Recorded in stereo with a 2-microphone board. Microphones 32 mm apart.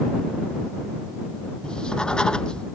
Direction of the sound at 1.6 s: 30° left (ahead or behind).